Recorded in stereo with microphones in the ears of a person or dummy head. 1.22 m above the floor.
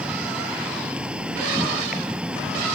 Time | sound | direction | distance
0.0 | an insect | 5° right (ahead or behind) | ?